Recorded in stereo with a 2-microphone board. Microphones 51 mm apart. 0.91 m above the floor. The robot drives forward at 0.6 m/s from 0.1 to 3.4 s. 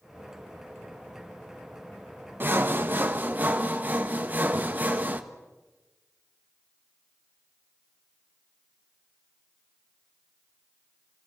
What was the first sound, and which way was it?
Sawing, 40° right (ahead or behind).